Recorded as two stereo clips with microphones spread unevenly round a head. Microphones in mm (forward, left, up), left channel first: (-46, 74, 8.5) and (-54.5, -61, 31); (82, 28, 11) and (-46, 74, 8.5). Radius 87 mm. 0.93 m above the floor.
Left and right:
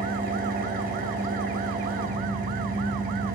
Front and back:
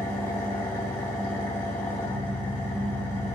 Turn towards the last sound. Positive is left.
turn(degrees=-95)